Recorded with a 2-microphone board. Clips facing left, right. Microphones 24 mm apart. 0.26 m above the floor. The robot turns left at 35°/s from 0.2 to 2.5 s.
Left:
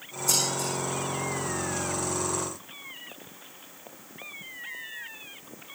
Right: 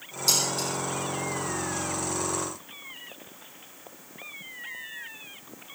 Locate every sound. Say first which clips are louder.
0.3 s dishes clattering: right 1 dB; 60° right (ahead or behind), 8 m; by 0.7 s 75° right (ahead or behind), 8 m